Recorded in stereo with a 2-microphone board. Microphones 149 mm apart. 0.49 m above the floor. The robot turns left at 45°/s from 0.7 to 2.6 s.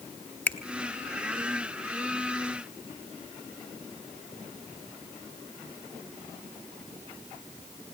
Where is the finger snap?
10° left (ahead or behind), 1.2 m.